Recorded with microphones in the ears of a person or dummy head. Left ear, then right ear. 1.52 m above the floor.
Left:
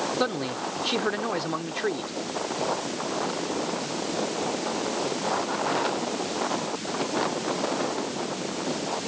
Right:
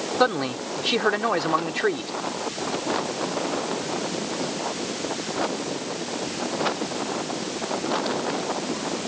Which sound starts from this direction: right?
A man speaking, at 0.2 s.